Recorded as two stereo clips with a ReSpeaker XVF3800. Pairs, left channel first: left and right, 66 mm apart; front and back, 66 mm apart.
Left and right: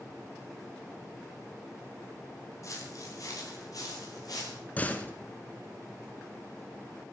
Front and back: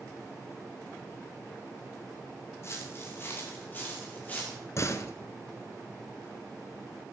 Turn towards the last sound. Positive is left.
turn(degrees=30)